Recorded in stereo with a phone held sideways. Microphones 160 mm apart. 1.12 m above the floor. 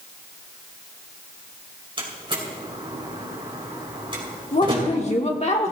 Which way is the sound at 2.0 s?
35° right (ahead or behind).